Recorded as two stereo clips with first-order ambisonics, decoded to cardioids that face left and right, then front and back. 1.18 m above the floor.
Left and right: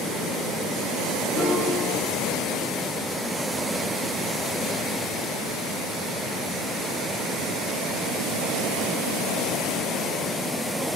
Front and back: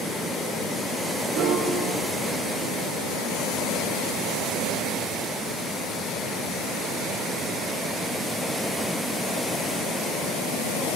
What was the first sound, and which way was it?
A piano, 155° left.